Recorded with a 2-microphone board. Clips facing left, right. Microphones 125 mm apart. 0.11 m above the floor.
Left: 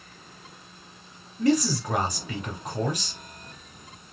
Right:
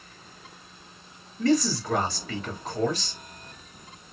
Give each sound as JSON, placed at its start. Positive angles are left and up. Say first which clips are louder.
{"t": 1.4, "sound": "a man speaking", "louder": "even", "side_deg": 15, "distance_m": 1.8}